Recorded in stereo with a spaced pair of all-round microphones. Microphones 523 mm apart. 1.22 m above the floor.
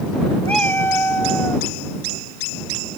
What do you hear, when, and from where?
0.5 s a cat meowing: 50° right (ahead or behind); by 1.7 s 55° right (ahead or behind)